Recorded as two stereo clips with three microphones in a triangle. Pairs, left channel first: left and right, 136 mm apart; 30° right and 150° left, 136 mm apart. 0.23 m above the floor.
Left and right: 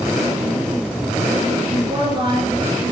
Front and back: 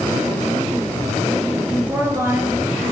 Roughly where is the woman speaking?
Behind right.